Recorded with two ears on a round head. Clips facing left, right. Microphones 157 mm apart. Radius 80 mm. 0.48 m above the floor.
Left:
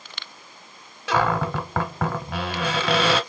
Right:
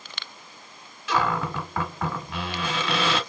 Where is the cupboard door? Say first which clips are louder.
Left 3 dB; 50° left (ahead or behind), 1.0 m.